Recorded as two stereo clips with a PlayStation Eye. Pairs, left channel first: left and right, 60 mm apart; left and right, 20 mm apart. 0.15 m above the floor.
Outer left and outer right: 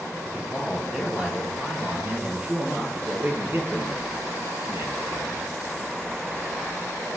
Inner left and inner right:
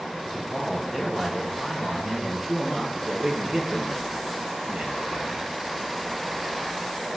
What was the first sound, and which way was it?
A man speaking, centre (ahead or behind).